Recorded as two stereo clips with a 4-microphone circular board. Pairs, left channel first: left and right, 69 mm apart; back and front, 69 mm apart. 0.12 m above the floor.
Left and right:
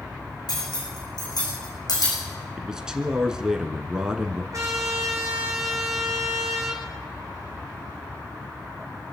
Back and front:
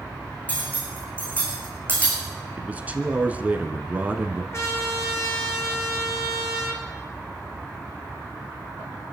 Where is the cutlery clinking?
110° left, 5 m.